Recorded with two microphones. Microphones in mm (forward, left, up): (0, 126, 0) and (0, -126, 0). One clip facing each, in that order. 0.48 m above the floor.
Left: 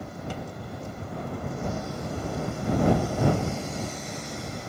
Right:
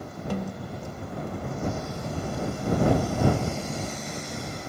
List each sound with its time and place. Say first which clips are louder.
0.3 s a snare drum: right 5 dB; 60° right (ahead or behind)